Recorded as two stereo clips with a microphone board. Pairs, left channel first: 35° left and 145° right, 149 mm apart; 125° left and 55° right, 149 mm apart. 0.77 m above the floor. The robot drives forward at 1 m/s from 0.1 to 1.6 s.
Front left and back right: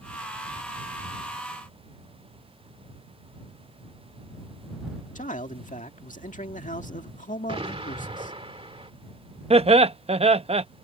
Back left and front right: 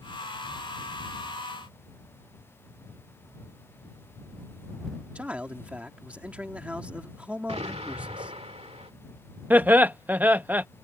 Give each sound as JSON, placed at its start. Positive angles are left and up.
{"t": 5.2, "sound": "a man speaking", "azimuth_deg": 25}
{"t": 7.5, "sound": "an explosion", "azimuth_deg": -100}
{"t": 9.5, "sound": "laughter", "azimuth_deg": -130}